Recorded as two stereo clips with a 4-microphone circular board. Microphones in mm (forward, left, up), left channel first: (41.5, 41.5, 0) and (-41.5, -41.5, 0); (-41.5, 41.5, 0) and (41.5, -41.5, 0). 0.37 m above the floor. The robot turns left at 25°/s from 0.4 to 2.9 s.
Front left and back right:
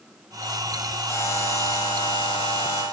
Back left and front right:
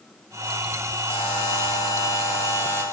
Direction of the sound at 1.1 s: 110° left.